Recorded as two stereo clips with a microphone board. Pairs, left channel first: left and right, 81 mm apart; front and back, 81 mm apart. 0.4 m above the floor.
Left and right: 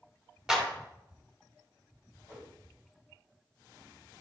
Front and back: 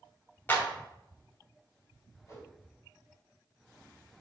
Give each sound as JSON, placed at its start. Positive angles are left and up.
{"t": 0.5, "sound": "a clap", "azimuth_deg": -15, "distance_m": 0.9}
{"t": 2.3, "sound": "a whoosh", "azimuth_deg": -45, "distance_m": 2.0}